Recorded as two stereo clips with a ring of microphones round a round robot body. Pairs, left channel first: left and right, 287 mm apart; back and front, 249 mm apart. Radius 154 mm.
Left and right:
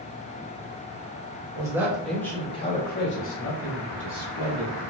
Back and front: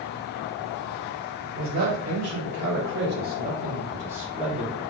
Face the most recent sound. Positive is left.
turn(degrees=95)